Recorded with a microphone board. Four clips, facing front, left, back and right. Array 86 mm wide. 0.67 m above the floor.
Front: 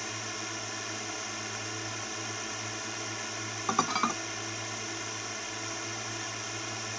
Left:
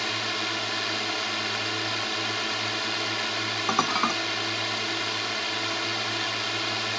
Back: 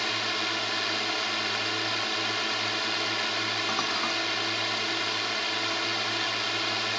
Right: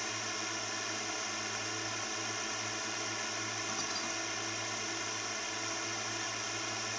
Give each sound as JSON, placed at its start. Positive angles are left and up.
{"t": 0.0, "sound": "a drone", "azimuth_deg": 135}
{"t": 3.7, "sound": "dishes clattering", "azimuth_deg": 75}